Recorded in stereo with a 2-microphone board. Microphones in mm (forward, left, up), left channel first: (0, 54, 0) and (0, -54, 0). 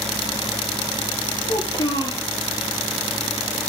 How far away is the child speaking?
About 3 m.